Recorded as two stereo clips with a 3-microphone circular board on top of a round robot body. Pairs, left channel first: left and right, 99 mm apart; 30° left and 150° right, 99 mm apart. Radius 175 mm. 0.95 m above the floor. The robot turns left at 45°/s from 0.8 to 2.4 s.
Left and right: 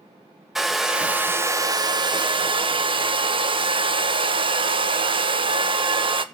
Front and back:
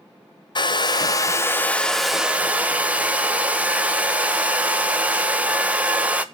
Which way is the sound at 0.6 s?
5° right.